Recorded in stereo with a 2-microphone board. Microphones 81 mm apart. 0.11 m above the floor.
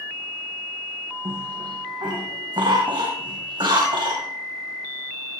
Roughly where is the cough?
Right.